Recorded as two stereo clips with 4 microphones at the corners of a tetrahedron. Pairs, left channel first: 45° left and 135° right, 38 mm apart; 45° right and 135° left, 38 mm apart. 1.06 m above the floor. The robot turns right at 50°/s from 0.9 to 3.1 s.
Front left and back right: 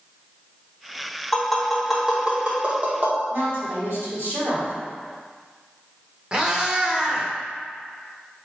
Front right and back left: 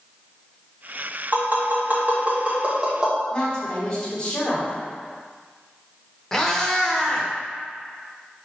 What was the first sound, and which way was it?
Tapping, 120° left.